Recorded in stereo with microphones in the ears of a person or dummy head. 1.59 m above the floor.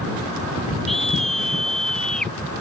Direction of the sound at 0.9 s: Centre (ahead or behind).